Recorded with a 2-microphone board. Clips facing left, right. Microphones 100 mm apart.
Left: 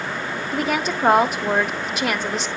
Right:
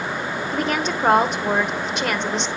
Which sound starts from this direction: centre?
A woman speaking, at 0.5 s.